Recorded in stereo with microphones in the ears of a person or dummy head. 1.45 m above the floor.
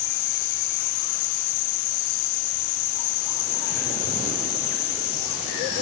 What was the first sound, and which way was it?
Only background noise.